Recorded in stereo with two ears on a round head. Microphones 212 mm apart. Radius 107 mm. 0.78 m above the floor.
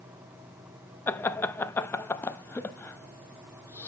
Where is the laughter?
10° left (ahead or behind), 0.5 m.